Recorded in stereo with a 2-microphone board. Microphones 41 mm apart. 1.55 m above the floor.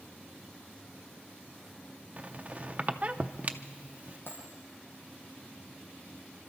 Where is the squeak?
35° right (ahead or behind), 0.6 m.